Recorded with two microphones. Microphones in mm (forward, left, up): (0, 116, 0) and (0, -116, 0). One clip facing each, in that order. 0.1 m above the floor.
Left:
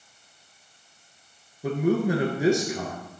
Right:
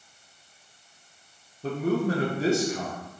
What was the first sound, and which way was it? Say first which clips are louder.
A man speaking: left 2 dB; 15° left (ahead or behind).